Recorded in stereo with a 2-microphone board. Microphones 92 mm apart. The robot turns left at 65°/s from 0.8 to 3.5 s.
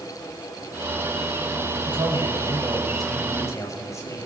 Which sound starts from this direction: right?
A man speaking, at 1.9 s.